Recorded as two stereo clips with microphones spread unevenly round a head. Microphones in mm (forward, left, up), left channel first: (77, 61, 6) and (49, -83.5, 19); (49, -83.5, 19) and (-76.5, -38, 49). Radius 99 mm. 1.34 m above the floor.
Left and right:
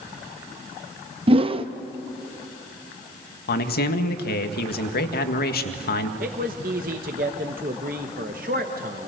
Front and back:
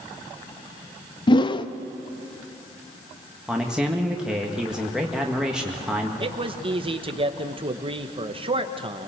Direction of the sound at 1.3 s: 75° right.